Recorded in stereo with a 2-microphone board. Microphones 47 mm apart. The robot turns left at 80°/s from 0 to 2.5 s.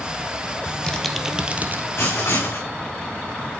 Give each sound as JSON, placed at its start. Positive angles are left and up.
{"t": 0.7, "sound": "typing on a keyboard", "azimuth_deg": 35, "distance_m": 1.7}
{"t": 2.0, "sound": "writing", "azimuth_deg": 120, "distance_m": 5.0}